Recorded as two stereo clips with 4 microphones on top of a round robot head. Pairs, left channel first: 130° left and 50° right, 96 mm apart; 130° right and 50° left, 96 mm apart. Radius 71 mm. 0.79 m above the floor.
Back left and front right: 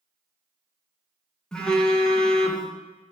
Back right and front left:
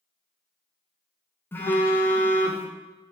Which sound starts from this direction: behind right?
A phone buzzing, at 1.5 s.